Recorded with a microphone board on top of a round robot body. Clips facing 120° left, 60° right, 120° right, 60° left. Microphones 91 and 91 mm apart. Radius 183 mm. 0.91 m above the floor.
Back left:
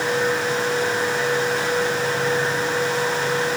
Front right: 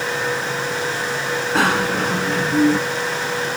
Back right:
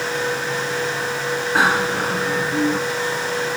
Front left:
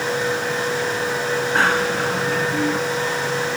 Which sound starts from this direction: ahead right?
A bicycle bell, at 1.6 s.